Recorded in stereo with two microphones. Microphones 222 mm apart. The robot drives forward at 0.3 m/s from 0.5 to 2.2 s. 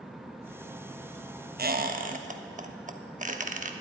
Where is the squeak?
45° right (ahead or behind), 0.6 m; by 3.7 s 35° right (ahead or behind), 0.8 m.